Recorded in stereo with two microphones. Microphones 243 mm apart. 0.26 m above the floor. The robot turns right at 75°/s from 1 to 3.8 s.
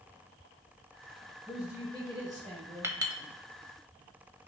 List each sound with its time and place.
1.5 s a woman speaking: 175° left, 1.0 m; by 2.9 s 75° right, 1.0 m
2.8 s a clink: 10° right (ahead or behind), 0.6 m; by 3.2 s 20° right (ahead or behind), 0.6 m